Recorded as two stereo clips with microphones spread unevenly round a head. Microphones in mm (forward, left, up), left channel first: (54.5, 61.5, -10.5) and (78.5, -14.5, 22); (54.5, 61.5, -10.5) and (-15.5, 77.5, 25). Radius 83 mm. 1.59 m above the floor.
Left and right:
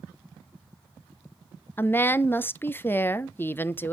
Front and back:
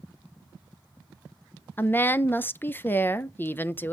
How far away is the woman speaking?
About 0.6 m.